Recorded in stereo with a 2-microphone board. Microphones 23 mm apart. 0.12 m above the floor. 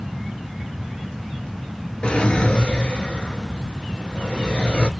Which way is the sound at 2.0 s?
45° left (ahead or behind).